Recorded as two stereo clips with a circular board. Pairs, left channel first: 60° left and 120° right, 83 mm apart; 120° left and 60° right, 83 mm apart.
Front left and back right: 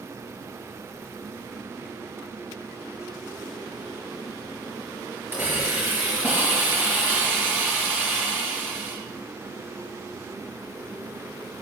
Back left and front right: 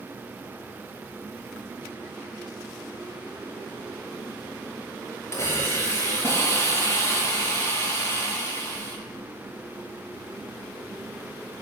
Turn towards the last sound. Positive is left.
turn(degrees=175)